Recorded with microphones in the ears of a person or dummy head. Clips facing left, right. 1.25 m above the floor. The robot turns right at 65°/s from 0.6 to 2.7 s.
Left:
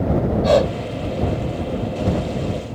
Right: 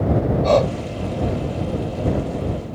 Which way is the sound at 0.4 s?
15° left (ahead or behind).